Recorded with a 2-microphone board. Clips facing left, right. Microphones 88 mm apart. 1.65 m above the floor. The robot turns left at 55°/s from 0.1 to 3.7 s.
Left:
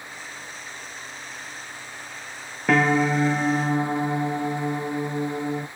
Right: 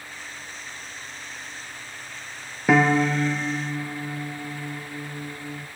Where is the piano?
170° right, 0.6 m; by 5.7 s 130° left, 0.6 m.